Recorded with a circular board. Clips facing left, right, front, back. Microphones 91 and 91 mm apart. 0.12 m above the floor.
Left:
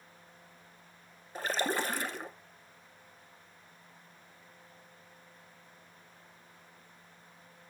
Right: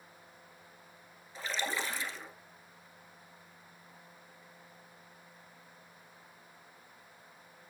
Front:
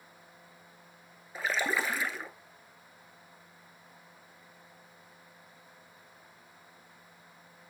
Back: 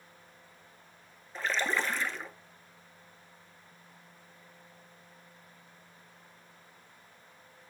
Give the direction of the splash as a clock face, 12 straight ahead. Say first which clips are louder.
Left 4 dB, even; 9 o'clock.